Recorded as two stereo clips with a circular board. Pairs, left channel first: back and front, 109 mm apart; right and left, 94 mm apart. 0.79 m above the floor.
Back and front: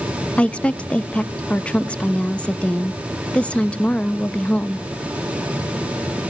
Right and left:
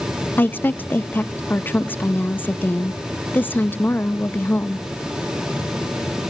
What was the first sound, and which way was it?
A woman speaking, 115° right.